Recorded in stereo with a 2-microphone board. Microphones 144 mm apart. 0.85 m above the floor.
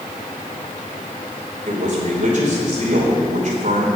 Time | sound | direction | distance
1.7 | a man speaking | 60° right (ahead or behind) | 3 m